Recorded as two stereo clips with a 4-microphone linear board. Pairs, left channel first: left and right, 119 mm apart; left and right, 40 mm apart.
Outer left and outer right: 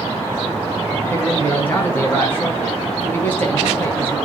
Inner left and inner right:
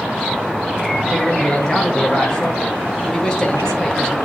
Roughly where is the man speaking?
Centre.